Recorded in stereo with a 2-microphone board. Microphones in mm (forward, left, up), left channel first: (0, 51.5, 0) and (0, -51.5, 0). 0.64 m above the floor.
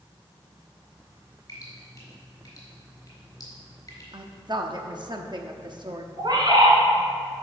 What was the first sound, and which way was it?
Dripping, 35° left (ahead or behind).